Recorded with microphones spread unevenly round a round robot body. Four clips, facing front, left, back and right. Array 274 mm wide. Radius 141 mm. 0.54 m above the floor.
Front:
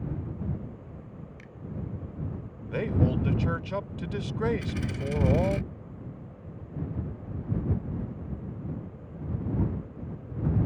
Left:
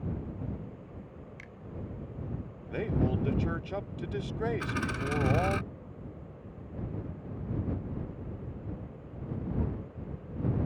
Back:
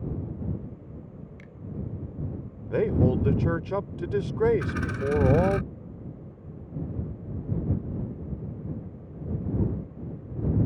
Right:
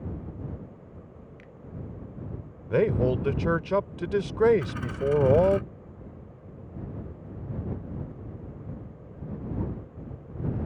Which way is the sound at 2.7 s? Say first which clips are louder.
Right 8 dB, back 4 dB; 105° right.